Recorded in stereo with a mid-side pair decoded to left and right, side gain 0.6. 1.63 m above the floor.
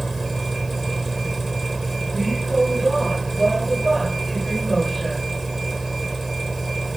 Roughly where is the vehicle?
Ahead.